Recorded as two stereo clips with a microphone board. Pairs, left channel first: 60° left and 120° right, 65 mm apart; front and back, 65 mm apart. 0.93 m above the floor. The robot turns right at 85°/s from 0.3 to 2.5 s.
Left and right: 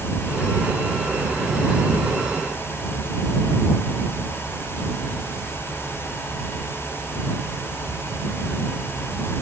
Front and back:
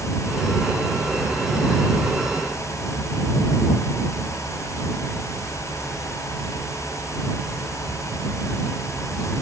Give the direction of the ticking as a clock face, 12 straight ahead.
I don't hear ticking.